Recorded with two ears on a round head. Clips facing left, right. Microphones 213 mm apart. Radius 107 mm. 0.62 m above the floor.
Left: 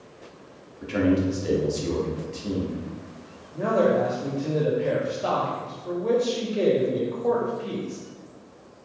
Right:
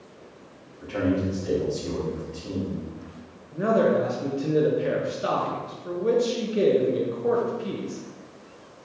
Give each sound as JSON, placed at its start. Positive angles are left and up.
{"t": 0.8, "sound": "a man speaking", "side_deg": 30, "distance_m": 1.1}
{"t": 3.5, "sound": "a man speaking", "side_deg": -15, "distance_m": 0.6}